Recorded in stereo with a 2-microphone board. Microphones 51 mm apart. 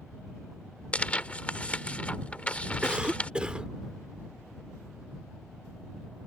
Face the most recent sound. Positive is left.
turn(degrees=-20)  # may be behind; listen again after turning